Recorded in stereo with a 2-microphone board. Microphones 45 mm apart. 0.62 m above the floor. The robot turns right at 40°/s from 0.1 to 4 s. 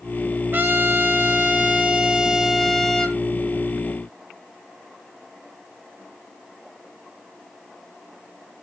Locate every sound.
0.5 s a trumpet: 80° right, 1.6 m; by 3.2 s 25° left, 1.6 m